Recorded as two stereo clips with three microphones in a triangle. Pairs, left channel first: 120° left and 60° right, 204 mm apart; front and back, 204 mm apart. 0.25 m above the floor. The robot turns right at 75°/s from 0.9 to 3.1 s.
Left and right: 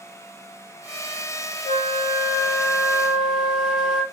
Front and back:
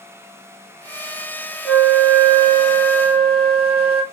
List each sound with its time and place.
1.6 s a flute: 105° left, 1.5 m; by 4.0 s 145° right, 1.5 m